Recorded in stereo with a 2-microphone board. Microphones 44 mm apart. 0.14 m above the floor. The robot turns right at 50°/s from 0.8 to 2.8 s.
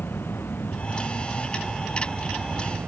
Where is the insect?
125° left; by 2.9 s 135° right.